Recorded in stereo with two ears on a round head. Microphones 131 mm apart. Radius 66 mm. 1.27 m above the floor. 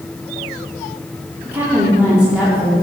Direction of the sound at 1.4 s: 15° right (ahead or behind).